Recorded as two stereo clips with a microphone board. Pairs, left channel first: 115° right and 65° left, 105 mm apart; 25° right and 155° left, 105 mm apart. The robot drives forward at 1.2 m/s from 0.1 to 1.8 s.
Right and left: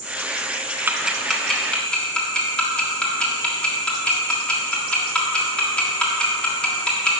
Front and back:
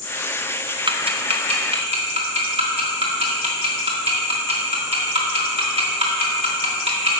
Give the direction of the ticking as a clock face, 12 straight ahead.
8 o'clock.